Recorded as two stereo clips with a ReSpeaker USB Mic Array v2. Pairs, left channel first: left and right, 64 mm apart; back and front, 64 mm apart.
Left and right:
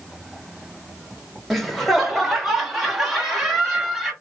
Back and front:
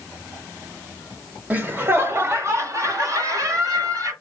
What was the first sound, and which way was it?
Laughter, straight ahead.